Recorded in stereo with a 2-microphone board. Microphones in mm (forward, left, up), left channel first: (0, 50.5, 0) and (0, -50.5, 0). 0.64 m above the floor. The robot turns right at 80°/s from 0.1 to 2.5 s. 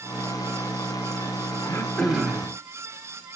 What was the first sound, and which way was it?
Throat clearing, 135° left.